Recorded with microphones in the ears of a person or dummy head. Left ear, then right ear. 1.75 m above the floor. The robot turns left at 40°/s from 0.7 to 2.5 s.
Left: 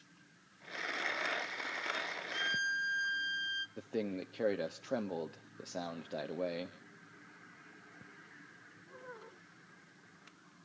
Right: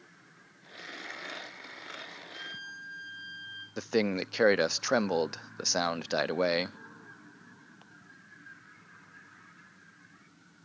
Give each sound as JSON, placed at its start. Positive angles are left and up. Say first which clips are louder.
{"t": 2.3, "sound": "a violin", "louder": "left 9 dB", "side_deg": 45, "distance_m": 0.7}
{"t": 3.8, "sound": "a man speaking", "louder": "right 10 dB", "side_deg": -55, "distance_m": 0.6}